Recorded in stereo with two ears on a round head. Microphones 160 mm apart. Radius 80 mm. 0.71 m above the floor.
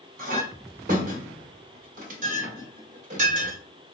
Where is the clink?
45° right (ahead or behind), 1.3 m.